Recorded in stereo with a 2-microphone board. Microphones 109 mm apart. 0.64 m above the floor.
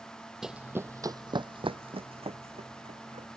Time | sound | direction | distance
0.4 | running footsteps | 5° right (ahead or behind) | ?